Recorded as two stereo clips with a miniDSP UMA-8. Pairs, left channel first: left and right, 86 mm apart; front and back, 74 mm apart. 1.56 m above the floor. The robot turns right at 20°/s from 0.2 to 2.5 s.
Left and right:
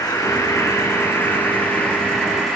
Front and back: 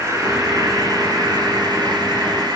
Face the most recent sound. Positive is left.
turn(degrees=180)